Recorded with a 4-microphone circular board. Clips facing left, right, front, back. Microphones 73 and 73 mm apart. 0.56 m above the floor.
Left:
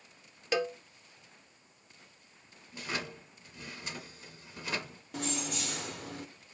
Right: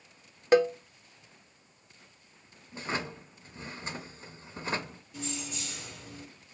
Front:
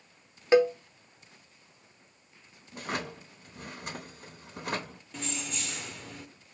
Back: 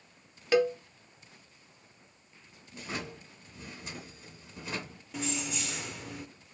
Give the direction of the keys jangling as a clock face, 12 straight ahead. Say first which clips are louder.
Left 3 dB, back 3 dB; 9 o'clock.